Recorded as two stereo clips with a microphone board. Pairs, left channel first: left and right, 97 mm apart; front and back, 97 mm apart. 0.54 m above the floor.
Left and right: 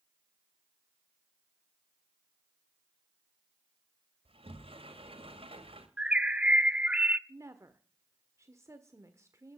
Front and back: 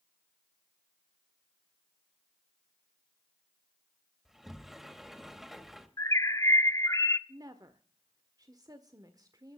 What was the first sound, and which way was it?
A sliding door, 95° right.